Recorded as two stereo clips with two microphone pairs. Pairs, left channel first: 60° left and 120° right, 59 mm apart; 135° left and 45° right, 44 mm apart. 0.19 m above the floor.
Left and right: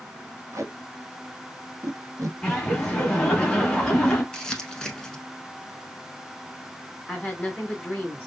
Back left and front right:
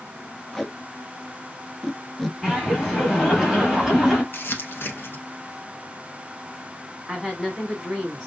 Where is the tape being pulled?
145° right, 0.5 m.